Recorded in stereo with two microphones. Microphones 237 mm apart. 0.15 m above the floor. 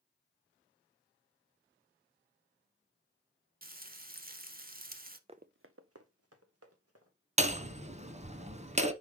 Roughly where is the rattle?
No rattle in this recording.